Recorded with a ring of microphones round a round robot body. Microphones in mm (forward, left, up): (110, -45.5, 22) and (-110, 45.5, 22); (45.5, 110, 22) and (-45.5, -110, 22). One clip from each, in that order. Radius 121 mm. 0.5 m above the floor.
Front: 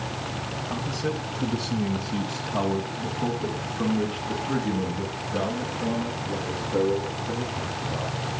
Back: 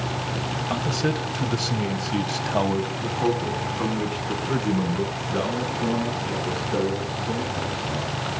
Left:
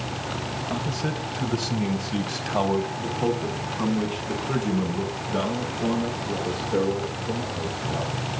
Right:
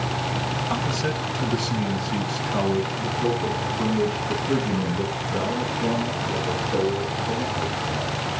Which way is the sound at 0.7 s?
Straight behind.